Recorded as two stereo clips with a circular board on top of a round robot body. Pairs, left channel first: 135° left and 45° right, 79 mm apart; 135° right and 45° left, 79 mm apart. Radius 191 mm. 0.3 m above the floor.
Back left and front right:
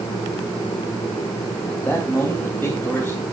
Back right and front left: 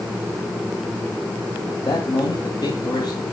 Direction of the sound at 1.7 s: 160° right.